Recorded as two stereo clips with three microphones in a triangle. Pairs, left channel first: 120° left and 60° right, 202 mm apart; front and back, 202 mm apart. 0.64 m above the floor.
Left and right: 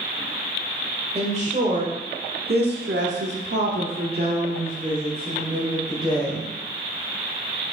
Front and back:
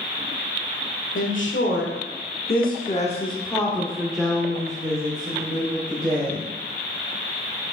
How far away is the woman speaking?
About 1.8 m.